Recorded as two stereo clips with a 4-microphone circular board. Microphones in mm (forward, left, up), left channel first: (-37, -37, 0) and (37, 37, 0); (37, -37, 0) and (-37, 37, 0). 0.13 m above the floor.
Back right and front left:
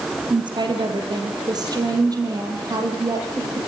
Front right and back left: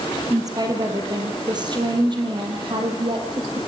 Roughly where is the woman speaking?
Left.